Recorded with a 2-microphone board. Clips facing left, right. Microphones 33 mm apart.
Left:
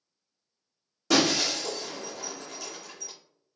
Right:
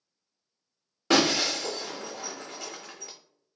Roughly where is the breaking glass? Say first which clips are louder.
Right 1 dB; right.